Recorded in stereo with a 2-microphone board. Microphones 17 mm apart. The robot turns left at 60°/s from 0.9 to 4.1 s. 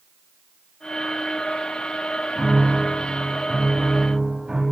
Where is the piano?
30° right, 5.5 m; by 4.6 s 135° right, 5.5 m.